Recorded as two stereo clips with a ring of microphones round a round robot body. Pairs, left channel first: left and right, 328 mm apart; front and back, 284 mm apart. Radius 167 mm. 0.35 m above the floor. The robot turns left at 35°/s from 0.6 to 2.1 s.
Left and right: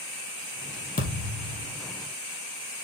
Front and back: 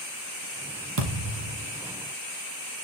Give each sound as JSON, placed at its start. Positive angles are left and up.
{"t": 1.0, "sound": "a thud", "azimuth_deg": 155, "distance_m": 3.5}